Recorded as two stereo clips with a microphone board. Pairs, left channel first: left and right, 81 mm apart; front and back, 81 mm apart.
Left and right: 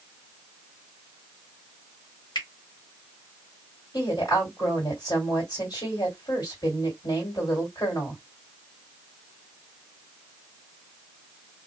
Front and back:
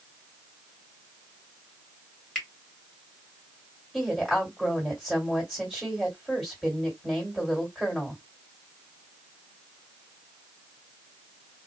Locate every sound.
2.4 s a finger snap: 80° left, 1.4 m
3.9 s a woman speaking: 85° left, 1.8 m